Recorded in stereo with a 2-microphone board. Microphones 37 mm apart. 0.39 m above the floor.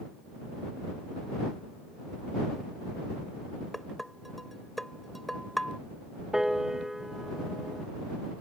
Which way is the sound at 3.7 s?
Centre (ahead or behind).